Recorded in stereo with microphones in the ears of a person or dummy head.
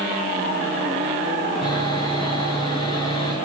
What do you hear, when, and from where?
1.6 s sawing: 35° left (ahead or behind), 9 m